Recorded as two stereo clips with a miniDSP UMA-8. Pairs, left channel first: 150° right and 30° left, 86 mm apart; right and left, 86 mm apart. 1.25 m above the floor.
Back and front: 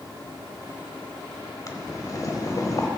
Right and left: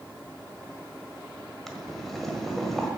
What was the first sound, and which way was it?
Boiling, straight behind.